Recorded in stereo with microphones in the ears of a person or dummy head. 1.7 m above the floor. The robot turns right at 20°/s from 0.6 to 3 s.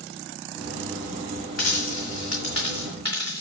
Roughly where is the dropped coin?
Left.